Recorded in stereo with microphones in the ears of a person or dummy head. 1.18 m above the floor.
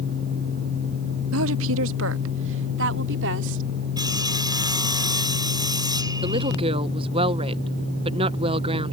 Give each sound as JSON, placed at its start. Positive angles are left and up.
{"t": 1.3, "sound": "a woman speaking", "side_deg": -75}
{"t": 4.0, "sound": "sawing", "side_deg": -20}
{"t": 6.2, "sound": "a woman speaking", "side_deg": -30}